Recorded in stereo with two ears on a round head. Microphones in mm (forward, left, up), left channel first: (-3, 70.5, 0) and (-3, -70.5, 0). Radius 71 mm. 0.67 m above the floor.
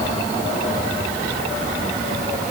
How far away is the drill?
No drill in this recording.